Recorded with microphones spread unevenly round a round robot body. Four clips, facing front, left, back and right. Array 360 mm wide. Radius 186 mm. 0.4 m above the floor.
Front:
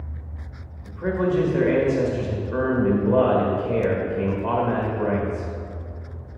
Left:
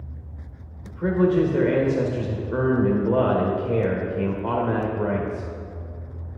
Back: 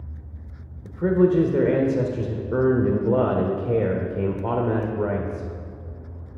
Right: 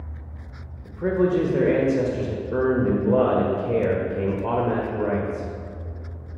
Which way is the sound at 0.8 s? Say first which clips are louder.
Even, back 4 dB; 175° right.